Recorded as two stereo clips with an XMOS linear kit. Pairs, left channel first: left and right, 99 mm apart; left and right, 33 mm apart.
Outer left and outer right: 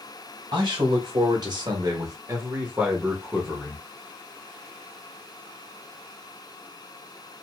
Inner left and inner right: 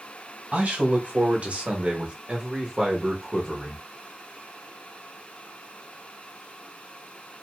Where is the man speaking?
50° right (ahead or behind), 1.4 m; by 3.9 s 10° left (ahead or behind), 1.2 m.